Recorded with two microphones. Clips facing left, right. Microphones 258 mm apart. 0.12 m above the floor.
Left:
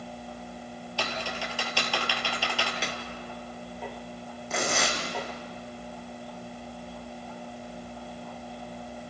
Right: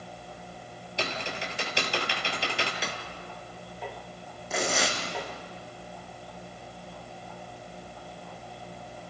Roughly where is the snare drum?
Centre.